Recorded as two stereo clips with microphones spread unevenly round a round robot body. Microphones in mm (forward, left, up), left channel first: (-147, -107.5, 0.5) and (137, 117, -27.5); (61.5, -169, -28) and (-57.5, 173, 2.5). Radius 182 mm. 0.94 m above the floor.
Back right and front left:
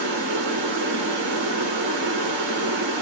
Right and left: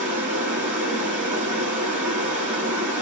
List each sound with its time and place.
0.0 s running water: 40° left, 1.4 m